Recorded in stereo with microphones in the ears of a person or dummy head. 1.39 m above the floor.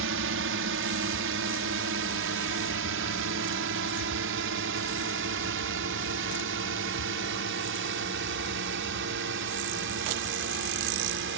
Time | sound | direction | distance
0.0 | a drone | 60° right (ahead or behind) | ?